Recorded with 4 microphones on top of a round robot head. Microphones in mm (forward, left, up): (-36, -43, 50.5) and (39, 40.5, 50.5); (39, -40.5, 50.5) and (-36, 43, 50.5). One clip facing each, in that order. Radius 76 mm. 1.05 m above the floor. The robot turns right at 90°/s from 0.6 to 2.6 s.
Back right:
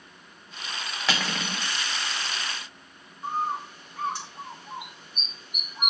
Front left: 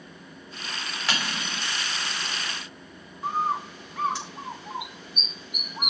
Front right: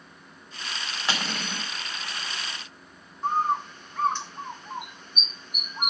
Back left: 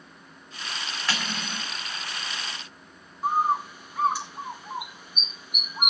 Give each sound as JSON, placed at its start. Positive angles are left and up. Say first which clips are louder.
{"t": 1.1, "sound": "cutlery clinking", "louder": "back right 2 dB, front right 2 dB", "azimuth_deg": -125, "distance_m": 2.5}
{"t": 3.2, "sound": "a bird", "louder": "front left 2 dB, back left 1 dB", "azimuth_deg": 50, "distance_m": 1.8}